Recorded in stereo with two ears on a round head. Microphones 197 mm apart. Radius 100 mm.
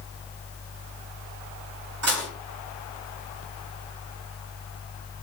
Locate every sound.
2.0 s dishes clattering: 80° right, 4.5 m